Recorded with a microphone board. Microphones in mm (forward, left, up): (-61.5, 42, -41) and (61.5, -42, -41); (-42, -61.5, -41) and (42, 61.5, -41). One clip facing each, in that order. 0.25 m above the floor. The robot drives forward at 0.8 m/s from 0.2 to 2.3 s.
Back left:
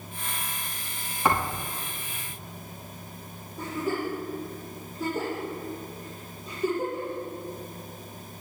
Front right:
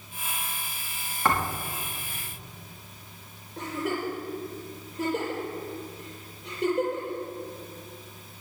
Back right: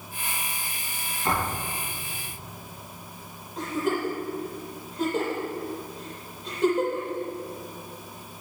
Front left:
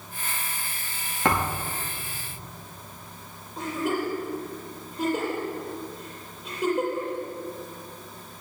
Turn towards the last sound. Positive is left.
turn(degrees=-30)